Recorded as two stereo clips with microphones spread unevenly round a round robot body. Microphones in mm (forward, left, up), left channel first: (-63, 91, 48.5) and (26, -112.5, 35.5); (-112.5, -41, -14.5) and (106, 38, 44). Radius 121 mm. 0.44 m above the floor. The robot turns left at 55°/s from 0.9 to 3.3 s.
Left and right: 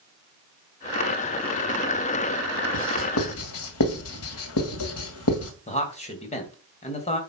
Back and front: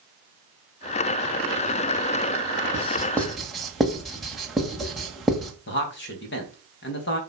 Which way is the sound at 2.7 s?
145° left.